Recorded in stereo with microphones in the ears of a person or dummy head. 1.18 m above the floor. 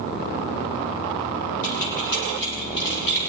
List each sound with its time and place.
1.6 s keys jangling: 65° left (ahead or behind), 8.5 m; by 3.2 s 55° left (ahead or behind), 10 m